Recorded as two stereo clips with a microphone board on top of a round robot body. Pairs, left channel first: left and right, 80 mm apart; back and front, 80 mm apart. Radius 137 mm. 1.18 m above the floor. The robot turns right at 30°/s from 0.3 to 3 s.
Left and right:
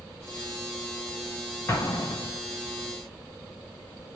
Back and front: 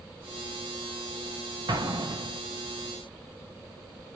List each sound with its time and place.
1.7 s an explosion: 35° left, 1.2 m; by 2.4 s 55° left, 1.2 m